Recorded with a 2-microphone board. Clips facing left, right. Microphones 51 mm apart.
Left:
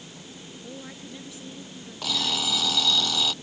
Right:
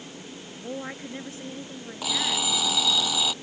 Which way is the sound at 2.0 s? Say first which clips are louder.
Right 1 dB; 10° right (ahead or behind).